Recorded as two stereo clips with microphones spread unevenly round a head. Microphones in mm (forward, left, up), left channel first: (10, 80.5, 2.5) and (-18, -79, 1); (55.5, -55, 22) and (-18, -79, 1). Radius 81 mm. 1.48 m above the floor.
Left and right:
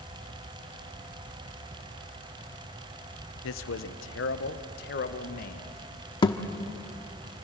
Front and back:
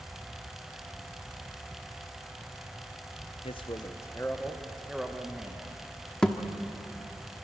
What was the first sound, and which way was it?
A man speaking, 70° left.